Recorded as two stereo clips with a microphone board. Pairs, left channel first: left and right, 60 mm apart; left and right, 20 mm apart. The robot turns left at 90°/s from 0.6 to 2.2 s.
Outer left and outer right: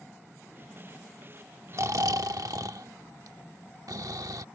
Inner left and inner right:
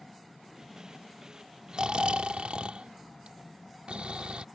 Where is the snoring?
50° right; by 4.5 s 90° right.